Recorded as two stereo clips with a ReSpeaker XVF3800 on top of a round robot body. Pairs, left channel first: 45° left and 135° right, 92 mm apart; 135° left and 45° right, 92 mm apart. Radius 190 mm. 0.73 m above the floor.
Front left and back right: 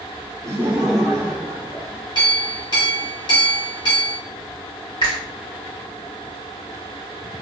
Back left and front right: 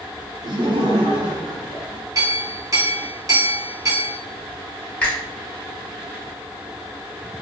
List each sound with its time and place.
0.4 s laughter: 80° right, 0.7 m; by 2.0 s 15° right, 1.3 m
2.1 s a clink: 10° left, 1.5 m
5.0 s a finger snap: 60° left, 1.6 m